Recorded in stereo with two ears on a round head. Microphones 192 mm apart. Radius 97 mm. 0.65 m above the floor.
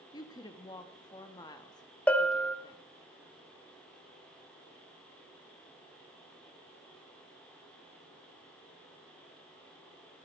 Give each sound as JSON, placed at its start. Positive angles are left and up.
{"t": 0.1, "sound": "a woman speaking", "side_deg": 20, "distance_m": 0.7}
{"t": 2.1, "sound": "a bell", "side_deg": 5, "distance_m": 0.6}